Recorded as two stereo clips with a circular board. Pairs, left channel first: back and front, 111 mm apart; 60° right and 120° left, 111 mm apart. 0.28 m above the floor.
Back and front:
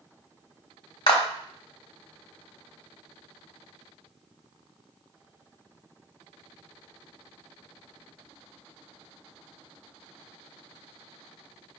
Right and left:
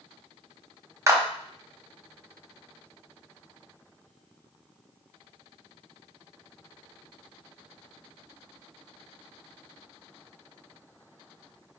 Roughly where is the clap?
Behind.